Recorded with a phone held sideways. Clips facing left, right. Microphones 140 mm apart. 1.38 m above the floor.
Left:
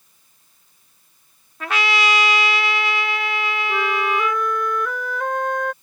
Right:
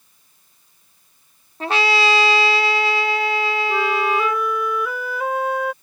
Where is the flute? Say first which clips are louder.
Right 1 dB; 5° right (ahead or behind).